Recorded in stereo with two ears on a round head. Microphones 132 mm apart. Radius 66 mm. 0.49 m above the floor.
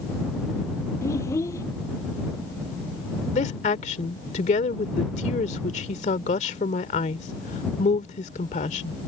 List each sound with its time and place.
1.0 s a child speaking: 20° left (ahead or behind)
3.3 s a woman speaking: 50° left (ahead or behind)